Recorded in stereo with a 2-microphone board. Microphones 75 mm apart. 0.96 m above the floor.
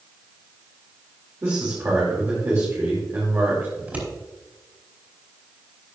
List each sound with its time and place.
1.4 s a man speaking: 35° right (ahead or behind), 3 m
3.8 s scissors: 20° right (ahead or behind), 4.5 m